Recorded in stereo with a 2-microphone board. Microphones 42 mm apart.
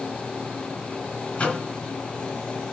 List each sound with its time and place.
1.4 s a microwave: 30° left (ahead or behind), 2 m